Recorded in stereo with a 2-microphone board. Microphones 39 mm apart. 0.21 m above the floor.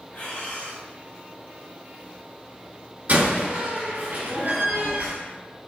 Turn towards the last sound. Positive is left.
turn(degrees=-50)  # may be behind; listen again after turning